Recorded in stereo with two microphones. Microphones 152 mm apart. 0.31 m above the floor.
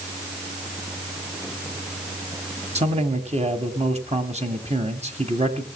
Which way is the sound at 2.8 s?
45° right (ahead or behind).